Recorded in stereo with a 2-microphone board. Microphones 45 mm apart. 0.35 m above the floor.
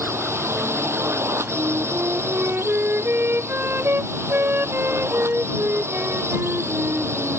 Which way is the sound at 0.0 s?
70° right (ahead or behind).